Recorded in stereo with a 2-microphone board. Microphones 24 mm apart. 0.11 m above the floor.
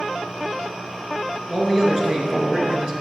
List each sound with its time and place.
1.5 s a man speaking: 25° right (ahead or behind), 1.2 m